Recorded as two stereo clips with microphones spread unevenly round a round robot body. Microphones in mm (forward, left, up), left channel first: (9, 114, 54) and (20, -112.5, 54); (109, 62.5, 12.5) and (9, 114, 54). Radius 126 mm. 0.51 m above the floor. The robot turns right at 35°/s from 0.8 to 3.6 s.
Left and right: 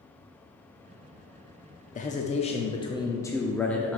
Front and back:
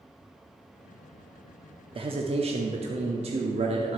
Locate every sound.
1.9 s a man speaking: 115° left, 0.8 m; by 4.0 s 175° left, 0.8 m